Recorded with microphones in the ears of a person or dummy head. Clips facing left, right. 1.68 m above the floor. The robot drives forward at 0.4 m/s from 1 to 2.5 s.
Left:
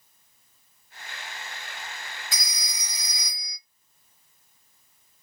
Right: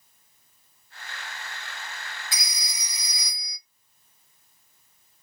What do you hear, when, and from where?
2.3 s a phone ringing: 20° right (ahead or behind), 1.1 m; by 3.6 s 15° right (ahead or behind), 1.1 m